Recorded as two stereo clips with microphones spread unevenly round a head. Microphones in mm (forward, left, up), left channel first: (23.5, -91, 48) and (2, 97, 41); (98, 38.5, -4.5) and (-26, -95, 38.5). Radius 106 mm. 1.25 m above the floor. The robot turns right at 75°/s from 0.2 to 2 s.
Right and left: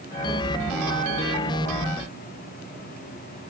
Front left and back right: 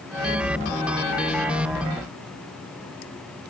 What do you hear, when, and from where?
Only background noise.